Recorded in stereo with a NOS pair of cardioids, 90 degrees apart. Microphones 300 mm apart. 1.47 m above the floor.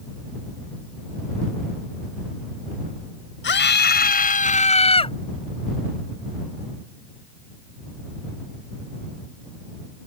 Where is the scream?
35° left; by 5.2 s 15° left.